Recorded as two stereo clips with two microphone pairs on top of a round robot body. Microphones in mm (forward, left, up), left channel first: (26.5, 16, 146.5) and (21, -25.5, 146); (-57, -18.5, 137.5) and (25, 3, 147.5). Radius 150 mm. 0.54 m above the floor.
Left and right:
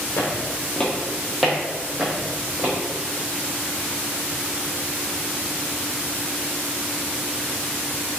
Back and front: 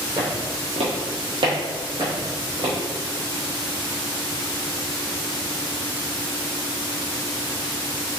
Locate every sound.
0.2 s footsteps: 65° left, 0.9 m; by 2.7 s 35° right, 2.0 m